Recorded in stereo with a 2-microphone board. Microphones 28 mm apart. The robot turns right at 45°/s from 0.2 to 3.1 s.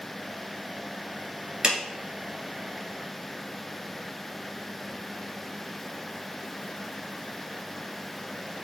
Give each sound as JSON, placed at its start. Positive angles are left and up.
{"t": 1.6, "sound": "a clap", "side_deg": -30, "distance_m": 1.4}